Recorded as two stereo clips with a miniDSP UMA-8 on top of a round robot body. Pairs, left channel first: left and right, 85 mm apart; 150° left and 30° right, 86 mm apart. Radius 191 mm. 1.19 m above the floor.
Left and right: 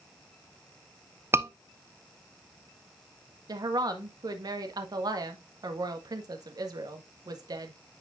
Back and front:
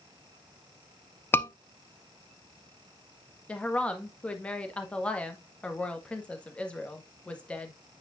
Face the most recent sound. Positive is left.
turn(degrees=-135)